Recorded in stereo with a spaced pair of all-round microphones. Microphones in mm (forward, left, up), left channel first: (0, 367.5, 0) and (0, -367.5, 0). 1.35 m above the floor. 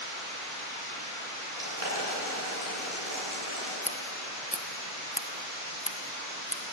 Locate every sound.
1.6 s boiling: 50° right (ahead or behind), 9 m
3.8 s scissors: 10° left (ahead or behind), 1.0 m